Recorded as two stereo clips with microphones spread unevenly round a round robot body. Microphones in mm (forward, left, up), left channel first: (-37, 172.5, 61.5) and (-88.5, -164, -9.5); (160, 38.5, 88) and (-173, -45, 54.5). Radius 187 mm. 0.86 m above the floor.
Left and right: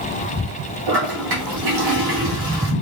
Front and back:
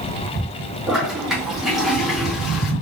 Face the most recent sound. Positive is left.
turn(degrees=-80)